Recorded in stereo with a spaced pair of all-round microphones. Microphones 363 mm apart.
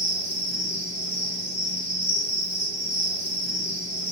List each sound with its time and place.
0.0 s an insect: 10° right (ahead or behind), 1.0 m